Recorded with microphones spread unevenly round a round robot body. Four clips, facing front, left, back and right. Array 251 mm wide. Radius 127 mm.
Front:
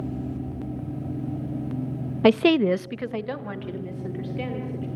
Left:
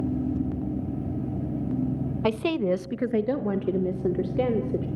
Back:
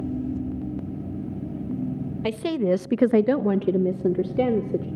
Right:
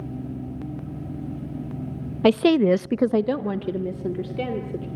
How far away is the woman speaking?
About 0.9 m.